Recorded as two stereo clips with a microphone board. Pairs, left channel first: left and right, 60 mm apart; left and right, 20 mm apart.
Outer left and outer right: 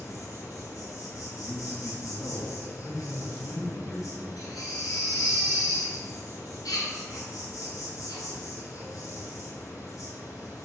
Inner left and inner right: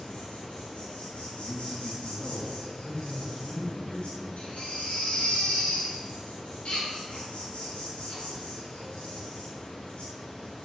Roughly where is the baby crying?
Left.